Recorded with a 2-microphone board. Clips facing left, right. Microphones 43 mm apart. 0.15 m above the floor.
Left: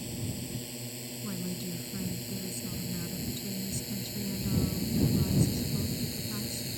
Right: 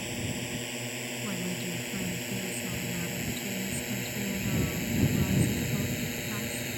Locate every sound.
0.0 s a drone: 65° right (ahead or behind); by 6.8 s 50° right (ahead or behind)
1.2 s a woman speaking: 25° right (ahead or behind)